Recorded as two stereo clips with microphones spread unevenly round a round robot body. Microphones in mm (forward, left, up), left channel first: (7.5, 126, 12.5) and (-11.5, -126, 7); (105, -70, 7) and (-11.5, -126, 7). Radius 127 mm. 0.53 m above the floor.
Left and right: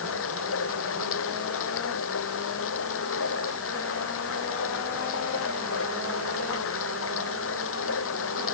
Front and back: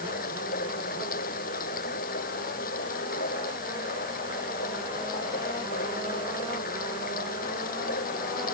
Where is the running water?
45° left.